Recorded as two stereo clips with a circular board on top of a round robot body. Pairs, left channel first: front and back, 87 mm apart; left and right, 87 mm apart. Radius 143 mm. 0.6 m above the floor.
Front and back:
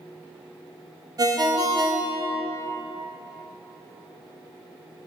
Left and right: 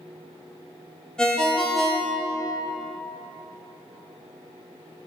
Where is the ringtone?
170° left, 0.7 m.